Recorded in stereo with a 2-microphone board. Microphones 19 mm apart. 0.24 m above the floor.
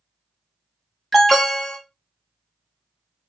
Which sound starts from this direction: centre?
An alarm, at 1.1 s.